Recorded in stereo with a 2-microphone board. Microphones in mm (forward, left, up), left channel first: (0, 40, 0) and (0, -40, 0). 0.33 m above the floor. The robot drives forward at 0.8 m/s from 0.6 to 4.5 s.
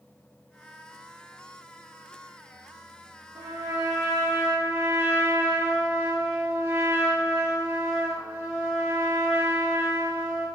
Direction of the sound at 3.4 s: 55° right (ahead or behind).